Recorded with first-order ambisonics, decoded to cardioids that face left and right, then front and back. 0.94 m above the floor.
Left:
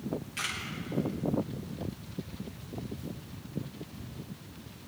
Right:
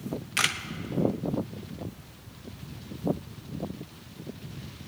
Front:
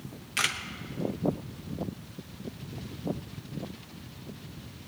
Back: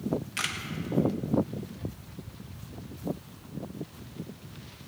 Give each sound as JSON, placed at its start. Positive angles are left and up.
{"t": 0.4, "sound": "a camera shutter", "azimuth_deg": -75, "distance_m": 0.8}